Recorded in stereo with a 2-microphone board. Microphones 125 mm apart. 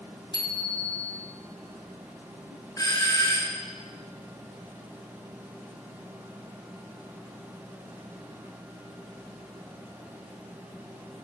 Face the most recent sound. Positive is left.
turn(degrees=35)  # may be behind; listen again after turning